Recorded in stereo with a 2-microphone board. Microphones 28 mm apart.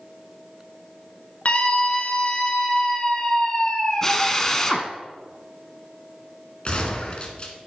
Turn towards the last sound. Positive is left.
turn(degrees=40)  # may be behind; listen again after turning